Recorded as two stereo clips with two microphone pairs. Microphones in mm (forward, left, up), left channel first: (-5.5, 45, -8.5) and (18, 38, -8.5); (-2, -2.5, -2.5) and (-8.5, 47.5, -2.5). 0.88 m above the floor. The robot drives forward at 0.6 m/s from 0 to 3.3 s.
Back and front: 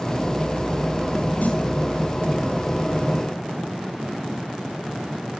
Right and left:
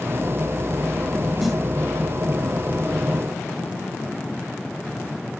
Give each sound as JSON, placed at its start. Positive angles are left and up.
{"t": 1.4, "sound": "a snare drum", "azimuth_deg": -175, "distance_m": 5.0}